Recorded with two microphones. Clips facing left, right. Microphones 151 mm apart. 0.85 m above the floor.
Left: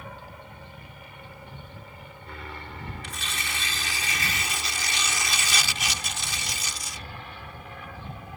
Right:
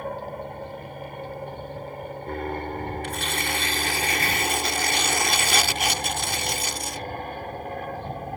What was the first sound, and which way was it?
An aircraft, 50° right (ahead or behind).